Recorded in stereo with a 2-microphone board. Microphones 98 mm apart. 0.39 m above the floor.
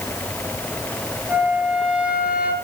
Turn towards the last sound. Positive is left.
turn(degrees=-15)  # may be behind; listen again after turning